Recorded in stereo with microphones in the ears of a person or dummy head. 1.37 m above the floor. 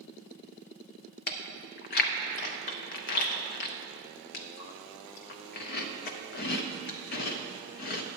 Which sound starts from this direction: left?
Chewing, at 1.3 s.